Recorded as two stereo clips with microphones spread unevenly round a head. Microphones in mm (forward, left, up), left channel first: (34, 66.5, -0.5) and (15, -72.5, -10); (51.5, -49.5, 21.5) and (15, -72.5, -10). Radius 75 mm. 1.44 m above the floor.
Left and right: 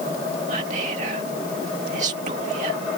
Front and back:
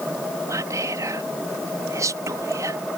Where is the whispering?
145° right.